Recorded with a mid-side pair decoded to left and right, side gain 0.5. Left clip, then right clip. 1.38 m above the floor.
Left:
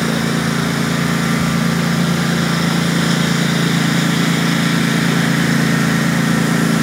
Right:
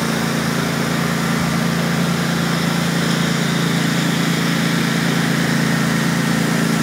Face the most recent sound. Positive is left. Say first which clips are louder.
# left 2 dB
turn(degrees=20)